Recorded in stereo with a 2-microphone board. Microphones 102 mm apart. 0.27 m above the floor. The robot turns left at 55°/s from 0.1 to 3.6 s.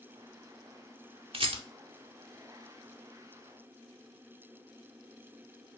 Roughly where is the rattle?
Right.